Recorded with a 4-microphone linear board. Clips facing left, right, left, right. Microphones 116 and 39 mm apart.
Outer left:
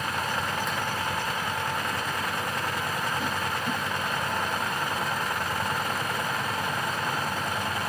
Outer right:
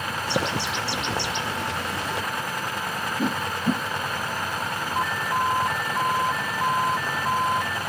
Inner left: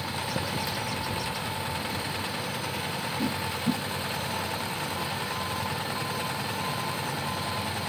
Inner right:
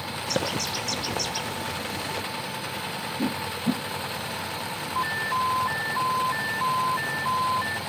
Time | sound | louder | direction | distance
0.3 | a bird | outer right 3 dB, inner right 6 dB | 85° right | ?
3.2 | a whoosh | outer right 4 dB, inner right 3 dB | 40° right (ahead or behind) | ?
5.0 | an alarm | outer right 4 dB, inner right 6 dB | 75° right (ahead or behind) | ?